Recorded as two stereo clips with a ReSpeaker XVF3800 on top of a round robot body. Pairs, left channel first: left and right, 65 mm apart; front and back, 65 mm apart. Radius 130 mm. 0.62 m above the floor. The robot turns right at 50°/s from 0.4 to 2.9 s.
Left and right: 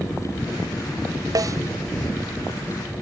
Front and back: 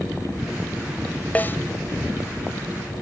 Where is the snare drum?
65° right; by 1.6 s 55° right.